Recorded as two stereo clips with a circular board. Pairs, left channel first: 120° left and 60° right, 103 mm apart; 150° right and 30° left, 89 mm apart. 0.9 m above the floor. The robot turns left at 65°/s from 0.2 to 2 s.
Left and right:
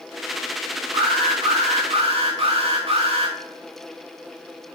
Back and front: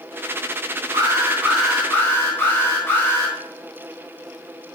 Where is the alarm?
15° right, 2 m; by 3.4 s 85° right, 2 m.